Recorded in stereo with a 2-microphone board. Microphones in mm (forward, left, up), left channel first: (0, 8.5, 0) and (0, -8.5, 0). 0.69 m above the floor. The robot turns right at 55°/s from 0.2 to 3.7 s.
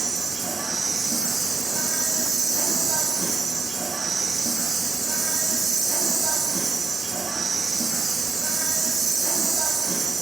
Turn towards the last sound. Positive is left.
turn(degrees=155)